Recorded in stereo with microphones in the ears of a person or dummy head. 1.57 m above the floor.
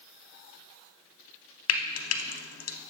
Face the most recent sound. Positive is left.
turn(degrees=70)  # may be behind; listen again after turning